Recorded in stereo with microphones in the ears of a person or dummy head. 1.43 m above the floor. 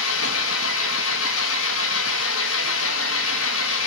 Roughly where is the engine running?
Left.